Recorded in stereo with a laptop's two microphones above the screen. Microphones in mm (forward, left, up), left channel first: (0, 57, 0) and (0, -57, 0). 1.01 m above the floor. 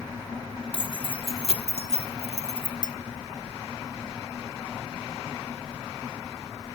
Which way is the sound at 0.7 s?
45° left (ahead or behind).